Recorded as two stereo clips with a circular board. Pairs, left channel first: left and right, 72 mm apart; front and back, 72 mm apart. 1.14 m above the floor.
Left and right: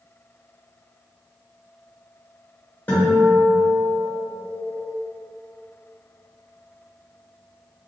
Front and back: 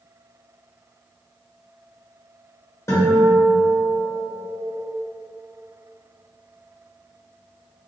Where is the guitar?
30° left, 1.3 m.